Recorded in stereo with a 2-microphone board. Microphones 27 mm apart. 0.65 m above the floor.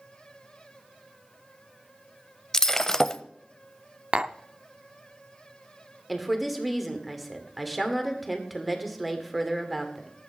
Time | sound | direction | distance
2.5 | breaking glass | 15° left (ahead or behind) | 0.6 m
4.1 | tapping | 35° right (ahead or behind) | 0.5 m
6.1 | a woman speaking | centre (ahead or behind) | 2 m